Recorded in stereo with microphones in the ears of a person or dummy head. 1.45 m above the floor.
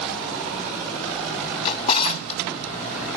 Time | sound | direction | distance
1.6 | a drawer | 35° left (ahead or behind) | 1.0 m